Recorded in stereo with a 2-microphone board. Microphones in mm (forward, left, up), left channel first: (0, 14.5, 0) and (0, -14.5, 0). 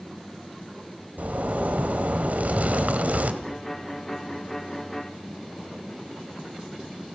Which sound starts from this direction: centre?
A violin, at 3.4 s.